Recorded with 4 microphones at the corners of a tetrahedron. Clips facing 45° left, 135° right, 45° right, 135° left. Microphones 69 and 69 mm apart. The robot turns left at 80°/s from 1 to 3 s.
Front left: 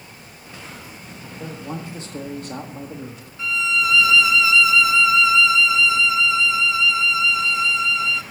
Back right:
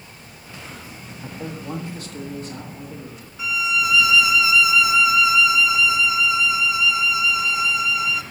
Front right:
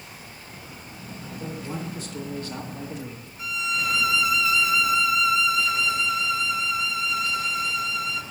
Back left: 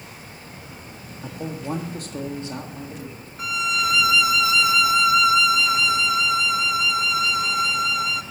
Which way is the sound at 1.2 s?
170° left.